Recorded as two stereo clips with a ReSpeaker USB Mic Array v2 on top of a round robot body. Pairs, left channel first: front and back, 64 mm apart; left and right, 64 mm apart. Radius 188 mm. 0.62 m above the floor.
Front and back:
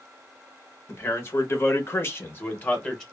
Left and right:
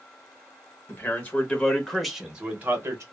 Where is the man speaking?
45° left, 1.5 m; by 3.0 s 65° right, 1.2 m.